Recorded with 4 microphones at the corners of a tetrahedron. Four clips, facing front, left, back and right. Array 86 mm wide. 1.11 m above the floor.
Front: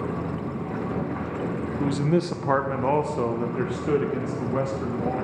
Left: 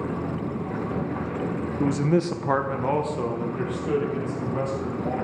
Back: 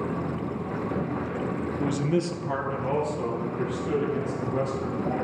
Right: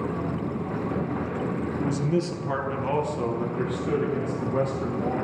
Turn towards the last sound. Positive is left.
turn(degrees=-20)